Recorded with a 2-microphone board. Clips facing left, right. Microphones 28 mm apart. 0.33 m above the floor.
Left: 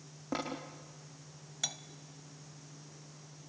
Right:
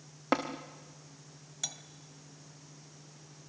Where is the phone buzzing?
No phone buzzing in this recording.